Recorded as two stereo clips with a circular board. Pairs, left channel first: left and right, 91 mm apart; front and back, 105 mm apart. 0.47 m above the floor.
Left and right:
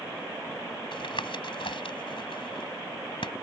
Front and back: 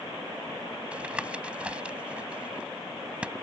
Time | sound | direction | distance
0.9 | tapping | 100° left | ?